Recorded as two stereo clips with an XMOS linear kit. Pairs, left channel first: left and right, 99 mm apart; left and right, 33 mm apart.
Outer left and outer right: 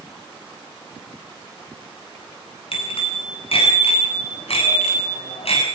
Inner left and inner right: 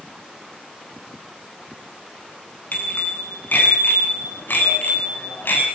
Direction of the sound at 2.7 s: 70° left (ahead or behind).